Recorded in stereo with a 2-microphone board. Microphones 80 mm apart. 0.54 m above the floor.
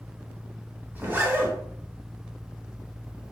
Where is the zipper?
25° right (ahead or behind), 0.8 m.